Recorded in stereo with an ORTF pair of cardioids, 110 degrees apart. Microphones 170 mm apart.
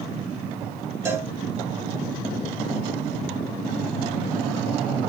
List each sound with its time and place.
1.1 s a cowbell: 15° right, 1.1 m